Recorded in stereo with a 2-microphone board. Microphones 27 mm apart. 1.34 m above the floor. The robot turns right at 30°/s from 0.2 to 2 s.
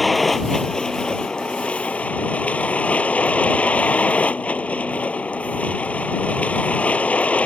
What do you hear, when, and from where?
0.0 s a vehicle: 5° left; by 7.5 s 60° left